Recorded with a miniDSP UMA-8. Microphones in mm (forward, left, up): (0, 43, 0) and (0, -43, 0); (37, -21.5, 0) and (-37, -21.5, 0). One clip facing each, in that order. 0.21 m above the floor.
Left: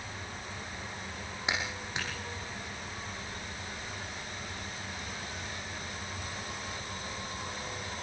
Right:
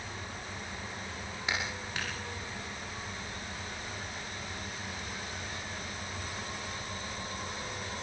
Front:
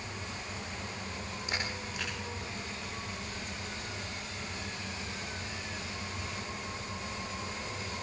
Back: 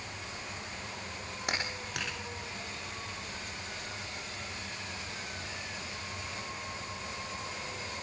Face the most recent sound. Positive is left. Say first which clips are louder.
# left 1 dB, back 2 dB
turn(degrees=160)